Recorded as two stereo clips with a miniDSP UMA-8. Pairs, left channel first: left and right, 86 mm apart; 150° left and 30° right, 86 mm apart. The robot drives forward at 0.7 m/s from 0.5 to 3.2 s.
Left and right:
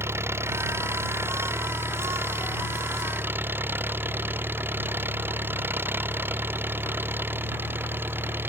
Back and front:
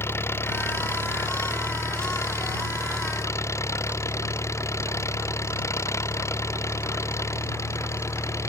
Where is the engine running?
150° right; by 8.5 s 155° right.